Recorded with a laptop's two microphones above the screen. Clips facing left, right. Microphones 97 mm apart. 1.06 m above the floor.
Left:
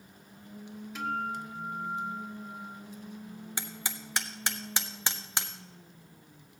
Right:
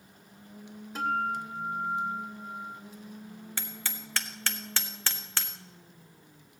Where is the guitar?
40° right (ahead or behind), 1.4 m.